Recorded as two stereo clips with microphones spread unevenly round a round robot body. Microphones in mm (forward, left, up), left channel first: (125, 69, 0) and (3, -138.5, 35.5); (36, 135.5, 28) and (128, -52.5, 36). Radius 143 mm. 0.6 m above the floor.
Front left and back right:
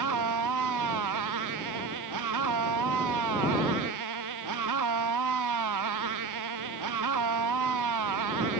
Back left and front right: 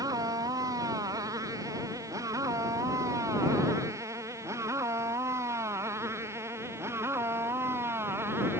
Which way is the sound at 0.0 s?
145° right.